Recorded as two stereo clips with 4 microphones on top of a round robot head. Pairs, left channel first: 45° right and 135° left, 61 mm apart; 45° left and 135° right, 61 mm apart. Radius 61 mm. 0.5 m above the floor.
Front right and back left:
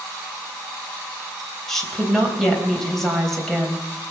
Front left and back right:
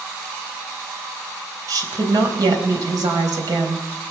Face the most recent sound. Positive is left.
turn(degrees=-130)